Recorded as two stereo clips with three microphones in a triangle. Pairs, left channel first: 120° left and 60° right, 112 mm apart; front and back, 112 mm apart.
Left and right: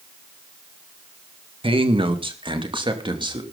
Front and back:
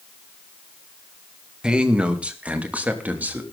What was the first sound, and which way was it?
A man speaking, 100° right.